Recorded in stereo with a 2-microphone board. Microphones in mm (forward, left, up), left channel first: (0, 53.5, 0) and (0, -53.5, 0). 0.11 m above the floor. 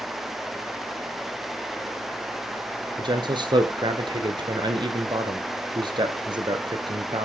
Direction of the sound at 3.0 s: 45° right (ahead or behind).